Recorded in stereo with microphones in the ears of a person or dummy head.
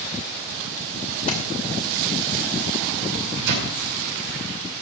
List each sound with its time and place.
1.3 s a splash: 45° left (ahead or behind), 2.5 m
3.1 s a microwave: 60° right (ahead or behind), 5 m